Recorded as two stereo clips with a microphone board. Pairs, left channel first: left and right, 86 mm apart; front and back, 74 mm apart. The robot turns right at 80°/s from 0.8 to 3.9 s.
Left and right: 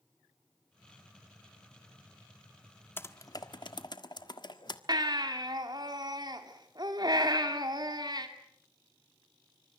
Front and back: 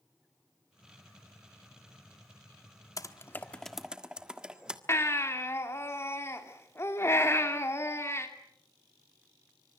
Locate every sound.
3.0 s typing on a keyboard: 30° left, 1.5 m; by 4.8 s 105° left, 1.5 m
4.9 s a baby crying: 55° right, 2.5 m